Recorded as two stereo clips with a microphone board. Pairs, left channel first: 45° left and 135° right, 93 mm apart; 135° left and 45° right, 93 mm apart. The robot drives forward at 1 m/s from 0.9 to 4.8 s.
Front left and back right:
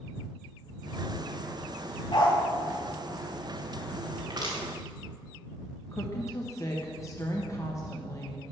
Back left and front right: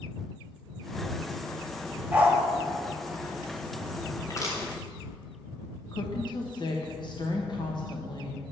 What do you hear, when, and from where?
2.1 s a dog barking: 25° left, 2 m
4.2 s crushing: 170° right, 3 m; by 4.6 s 175° right, 3 m
5.9 s a woman speaking: 100° left, 1.1 m